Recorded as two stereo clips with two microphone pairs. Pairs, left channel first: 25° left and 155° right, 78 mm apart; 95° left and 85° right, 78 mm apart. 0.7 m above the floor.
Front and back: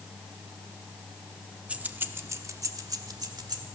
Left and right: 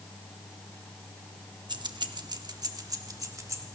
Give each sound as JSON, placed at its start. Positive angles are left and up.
{"t": 1.7, "sound": "keys jangling", "azimuth_deg": -85, "distance_m": 0.8}